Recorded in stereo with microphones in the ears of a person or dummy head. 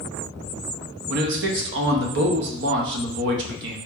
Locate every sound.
1.1 s a man speaking: 65° right (ahead or behind), 1.0 m